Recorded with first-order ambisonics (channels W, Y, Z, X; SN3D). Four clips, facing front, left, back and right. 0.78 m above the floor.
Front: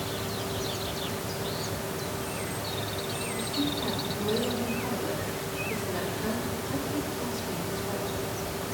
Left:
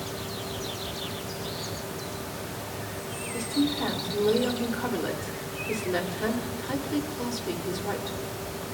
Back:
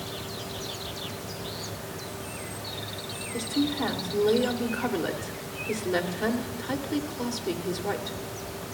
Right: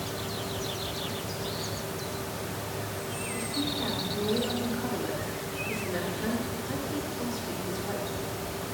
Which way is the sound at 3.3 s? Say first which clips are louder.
Left 6 dB, back 5 dB; 155° left.